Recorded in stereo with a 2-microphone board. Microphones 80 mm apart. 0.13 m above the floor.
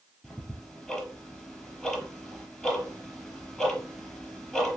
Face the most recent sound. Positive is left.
turn(degrees=5)  # may be behind; listen again after turning